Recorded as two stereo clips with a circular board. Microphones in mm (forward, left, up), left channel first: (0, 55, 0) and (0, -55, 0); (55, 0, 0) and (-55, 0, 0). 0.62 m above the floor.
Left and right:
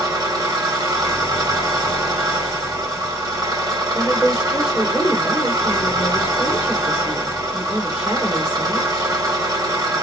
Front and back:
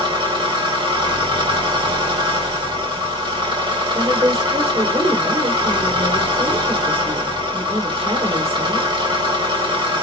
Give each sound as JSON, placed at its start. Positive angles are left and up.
{"t": 0.0, "sound": "an engine running", "azimuth_deg": -140, "distance_m": 2.5}
{"t": 3.9, "sound": "a woman speaking", "azimuth_deg": -170, "distance_m": 1.8}